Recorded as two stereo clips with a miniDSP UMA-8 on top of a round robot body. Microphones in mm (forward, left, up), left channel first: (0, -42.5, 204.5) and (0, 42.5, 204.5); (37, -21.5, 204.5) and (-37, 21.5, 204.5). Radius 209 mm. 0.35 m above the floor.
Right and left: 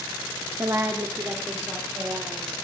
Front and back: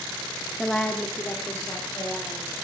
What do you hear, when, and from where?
0.6 s a woman speaking: 60° left, 1.3 m; by 2.5 s 20° left, 3.5 m